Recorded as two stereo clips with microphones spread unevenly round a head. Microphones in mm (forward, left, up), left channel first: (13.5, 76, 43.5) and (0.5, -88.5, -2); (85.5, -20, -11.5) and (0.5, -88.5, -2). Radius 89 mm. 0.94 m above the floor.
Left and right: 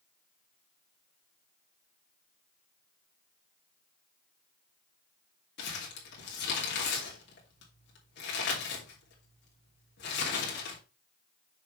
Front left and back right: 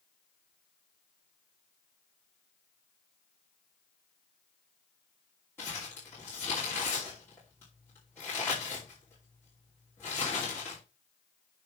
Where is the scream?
I don't hear a scream.